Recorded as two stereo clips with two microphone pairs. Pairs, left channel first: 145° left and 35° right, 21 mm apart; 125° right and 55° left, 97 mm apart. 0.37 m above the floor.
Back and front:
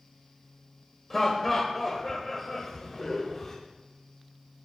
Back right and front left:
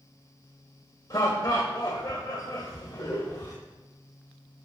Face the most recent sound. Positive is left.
turn(degrees=-145)